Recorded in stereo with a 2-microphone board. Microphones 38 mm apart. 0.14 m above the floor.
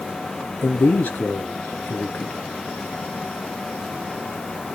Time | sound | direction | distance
0.6 | a man speaking | 55° left (ahead or behind) | 1.8 m